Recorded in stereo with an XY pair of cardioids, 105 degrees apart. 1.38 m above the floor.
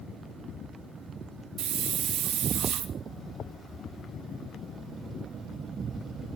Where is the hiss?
65° right, 1.1 m.